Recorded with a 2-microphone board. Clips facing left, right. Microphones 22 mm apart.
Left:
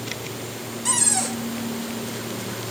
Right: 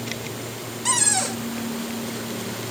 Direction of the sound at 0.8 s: 15° right (ahead or behind).